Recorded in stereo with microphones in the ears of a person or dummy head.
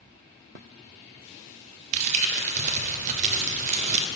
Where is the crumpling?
40° right (ahead or behind), 0.6 m.